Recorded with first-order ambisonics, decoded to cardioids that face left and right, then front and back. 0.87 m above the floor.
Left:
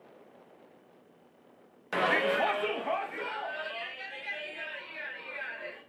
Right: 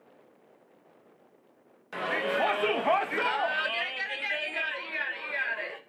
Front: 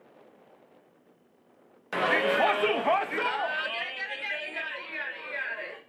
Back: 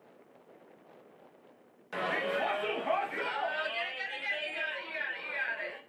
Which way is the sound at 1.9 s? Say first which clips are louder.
Left 2 dB, front 7 dB; 40° left.